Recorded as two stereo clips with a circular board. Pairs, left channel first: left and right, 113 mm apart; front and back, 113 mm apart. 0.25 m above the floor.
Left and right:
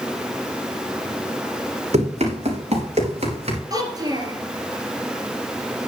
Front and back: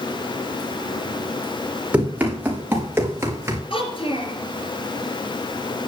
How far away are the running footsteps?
About 5 m.